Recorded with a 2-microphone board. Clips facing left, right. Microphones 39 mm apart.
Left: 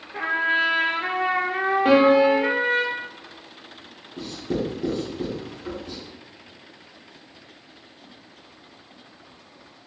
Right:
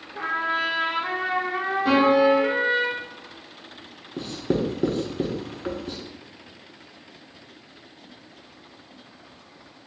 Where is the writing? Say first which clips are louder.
Right 2 dB; 60° right (ahead or behind), 0.9 m.